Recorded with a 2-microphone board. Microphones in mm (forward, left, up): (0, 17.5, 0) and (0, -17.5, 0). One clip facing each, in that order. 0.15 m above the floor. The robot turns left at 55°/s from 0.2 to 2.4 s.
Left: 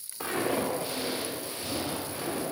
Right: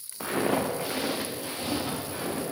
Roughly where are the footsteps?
Centre.